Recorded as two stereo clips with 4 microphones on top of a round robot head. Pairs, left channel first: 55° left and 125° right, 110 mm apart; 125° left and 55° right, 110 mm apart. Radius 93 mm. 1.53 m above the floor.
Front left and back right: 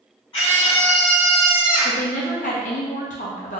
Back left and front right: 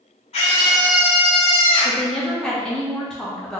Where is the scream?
105° left, 1.0 m; by 2.0 s 160° left, 1.0 m.